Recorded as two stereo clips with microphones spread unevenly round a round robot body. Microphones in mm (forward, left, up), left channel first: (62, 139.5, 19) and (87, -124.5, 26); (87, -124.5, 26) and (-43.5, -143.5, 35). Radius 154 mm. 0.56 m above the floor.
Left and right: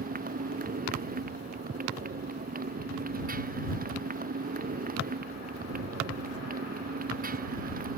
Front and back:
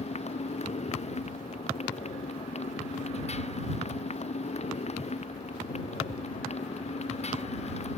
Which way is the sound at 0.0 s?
25° right.